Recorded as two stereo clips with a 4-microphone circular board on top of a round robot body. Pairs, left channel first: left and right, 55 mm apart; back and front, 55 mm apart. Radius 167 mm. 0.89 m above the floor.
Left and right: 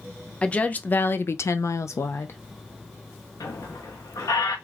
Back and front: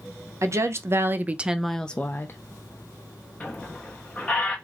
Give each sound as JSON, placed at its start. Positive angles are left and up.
{"t": 0.4, "sound": "a woman speaking", "azimuth_deg": 20, "distance_m": 0.8}
{"t": 3.4, "sound": "a squeak", "azimuth_deg": 110, "distance_m": 0.6}